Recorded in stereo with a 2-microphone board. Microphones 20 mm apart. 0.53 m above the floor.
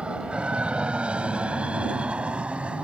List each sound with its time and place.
0.0 s an aircraft: 60° right (ahead or behind); by 2.9 s 70° right (ahead or behind)